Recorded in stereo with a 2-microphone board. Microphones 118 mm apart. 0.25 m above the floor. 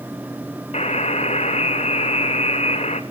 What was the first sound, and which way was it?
A buzzer, 70° left (ahead or behind).